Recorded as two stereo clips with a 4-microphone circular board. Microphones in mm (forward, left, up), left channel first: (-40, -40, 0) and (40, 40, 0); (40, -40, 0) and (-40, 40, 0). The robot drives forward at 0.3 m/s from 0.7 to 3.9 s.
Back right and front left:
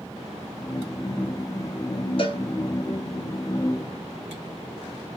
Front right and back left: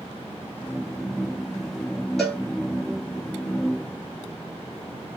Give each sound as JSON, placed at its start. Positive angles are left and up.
{"t": 2.2, "sound": "a cowbell", "azimuth_deg": -130, "distance_m": 1.3}